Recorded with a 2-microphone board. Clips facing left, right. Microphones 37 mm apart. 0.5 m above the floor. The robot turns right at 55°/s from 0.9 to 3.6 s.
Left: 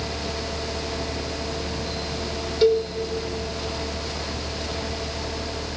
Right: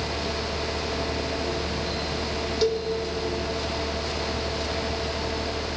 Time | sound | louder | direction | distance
2.6 | a cowbell | left 7 dB | 20° left (ahead or behind) | 1.8 m